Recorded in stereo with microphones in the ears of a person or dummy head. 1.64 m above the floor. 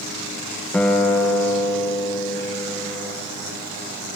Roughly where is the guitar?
Centre.